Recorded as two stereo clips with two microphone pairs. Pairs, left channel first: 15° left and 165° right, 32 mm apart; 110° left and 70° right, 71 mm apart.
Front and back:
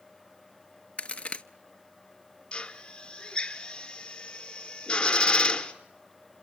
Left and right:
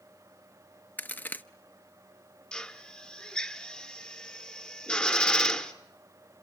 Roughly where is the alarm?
No alarm in this recording.